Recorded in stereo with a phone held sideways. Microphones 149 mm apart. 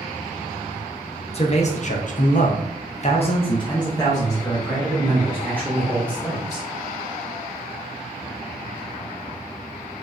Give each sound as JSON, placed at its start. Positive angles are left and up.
{"t": 1.3, "sound": "a man speaking", "side_deg": 40, "distance_m": 0.9}